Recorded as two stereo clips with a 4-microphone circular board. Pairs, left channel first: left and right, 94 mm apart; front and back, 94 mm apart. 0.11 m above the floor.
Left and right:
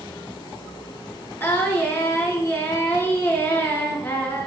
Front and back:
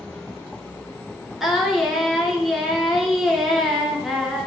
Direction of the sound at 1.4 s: 100° left.